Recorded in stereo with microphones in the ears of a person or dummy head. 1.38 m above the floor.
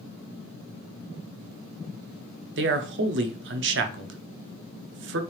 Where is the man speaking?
50° right (ahead or behind), 0.6 m.